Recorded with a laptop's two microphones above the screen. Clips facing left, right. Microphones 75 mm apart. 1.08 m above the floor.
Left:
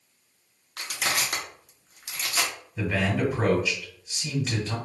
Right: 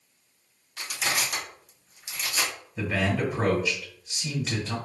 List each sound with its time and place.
0.8 s crushing: 70° left (ahead or behind), 0.7 m
2.8 s a man speaking: centre (ahead or behind), 1.3 m